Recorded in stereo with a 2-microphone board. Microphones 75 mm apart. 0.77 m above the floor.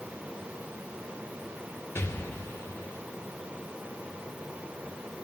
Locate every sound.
1.9 s an explosion: 35° left (ahead or behind), 0.7 m